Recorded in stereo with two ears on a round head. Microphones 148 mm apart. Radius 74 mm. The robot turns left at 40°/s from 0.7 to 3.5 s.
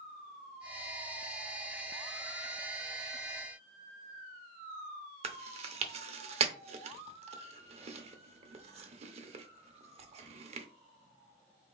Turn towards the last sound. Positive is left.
turn(degrees=-40)  # may be behind; listen again after turning